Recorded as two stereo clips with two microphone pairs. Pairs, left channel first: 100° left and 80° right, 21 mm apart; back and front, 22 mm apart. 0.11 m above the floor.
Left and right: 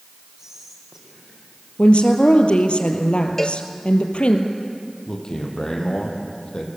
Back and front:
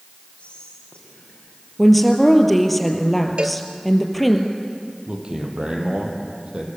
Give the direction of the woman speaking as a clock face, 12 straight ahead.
9 o'clock.